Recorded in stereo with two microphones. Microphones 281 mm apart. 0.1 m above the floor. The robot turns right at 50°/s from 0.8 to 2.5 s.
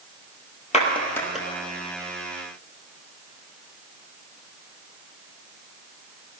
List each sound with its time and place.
0.7 s a clap: 25° left (ahead or behind), 2.0 m; by 1.5 s 5° right (ahead or behind), 2.0 m